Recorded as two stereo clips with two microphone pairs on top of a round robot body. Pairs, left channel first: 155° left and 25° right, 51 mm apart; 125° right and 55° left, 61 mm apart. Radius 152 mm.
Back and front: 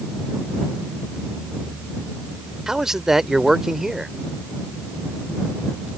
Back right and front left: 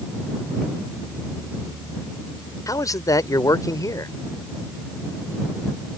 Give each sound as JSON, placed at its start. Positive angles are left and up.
{"t": 2.7, "sound": "a man speaking", "azimuth_deg": -105}